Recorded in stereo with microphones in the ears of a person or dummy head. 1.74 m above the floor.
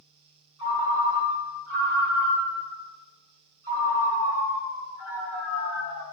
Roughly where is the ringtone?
Centre.